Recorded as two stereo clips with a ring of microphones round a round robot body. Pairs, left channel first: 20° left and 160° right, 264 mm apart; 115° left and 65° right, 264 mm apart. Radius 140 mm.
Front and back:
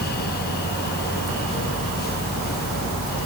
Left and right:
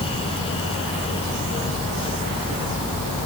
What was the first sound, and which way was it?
Only background noise.